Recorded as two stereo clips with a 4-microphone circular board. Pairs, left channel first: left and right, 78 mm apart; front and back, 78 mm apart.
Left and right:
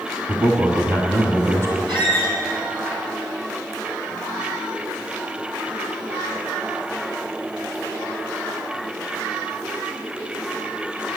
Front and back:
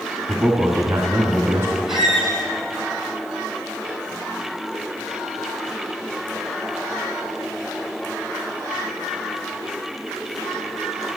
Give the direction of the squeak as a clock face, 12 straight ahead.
3 o'clock.